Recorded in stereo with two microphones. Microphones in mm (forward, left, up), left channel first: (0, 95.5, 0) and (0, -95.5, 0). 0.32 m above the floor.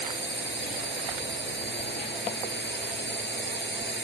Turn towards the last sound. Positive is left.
turn(degrees=65)  # may be behind; listen again after turning